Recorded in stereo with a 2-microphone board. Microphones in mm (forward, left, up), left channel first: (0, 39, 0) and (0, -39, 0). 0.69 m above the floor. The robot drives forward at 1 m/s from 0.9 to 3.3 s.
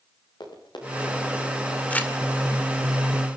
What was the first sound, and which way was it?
Running footsteps, 85° left.